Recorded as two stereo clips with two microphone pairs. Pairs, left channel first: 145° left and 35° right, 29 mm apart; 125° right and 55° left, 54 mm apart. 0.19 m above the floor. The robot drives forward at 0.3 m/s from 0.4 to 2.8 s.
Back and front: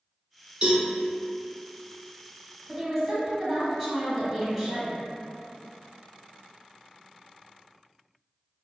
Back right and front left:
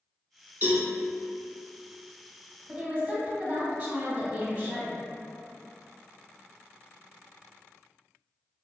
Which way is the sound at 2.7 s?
60° left.